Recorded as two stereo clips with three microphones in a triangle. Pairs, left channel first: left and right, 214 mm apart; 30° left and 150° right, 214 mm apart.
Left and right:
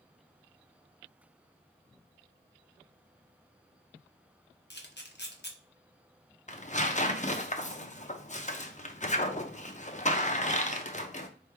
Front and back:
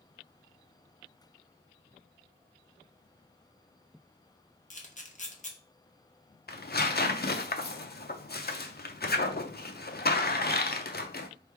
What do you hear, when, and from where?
4.7 s a camera shutter: 75° left, 0.9 m
6.5 s tearing paper: 50° left, 0.5 m